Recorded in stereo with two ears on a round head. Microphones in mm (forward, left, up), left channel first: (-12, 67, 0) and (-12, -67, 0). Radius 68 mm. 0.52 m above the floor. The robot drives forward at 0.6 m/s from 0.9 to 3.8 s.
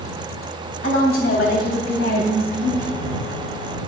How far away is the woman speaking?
About 3.5 m.